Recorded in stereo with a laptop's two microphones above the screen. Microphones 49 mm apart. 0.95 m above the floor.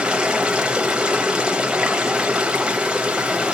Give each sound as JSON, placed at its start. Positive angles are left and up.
{"t": 0.0, "sound": "running water", "side_deg": -20, "distance_m": 0.8}